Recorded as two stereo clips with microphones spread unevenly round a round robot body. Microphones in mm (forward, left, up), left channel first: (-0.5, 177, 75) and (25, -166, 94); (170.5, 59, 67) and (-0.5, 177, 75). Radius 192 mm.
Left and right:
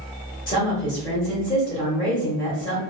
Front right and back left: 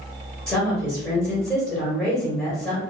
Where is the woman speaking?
35° left, 1.5 m.